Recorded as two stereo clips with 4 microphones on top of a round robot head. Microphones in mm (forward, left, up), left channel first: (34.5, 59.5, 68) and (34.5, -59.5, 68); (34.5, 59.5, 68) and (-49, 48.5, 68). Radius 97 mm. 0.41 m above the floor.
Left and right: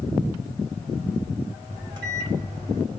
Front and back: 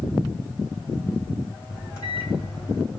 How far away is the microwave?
About 2 m.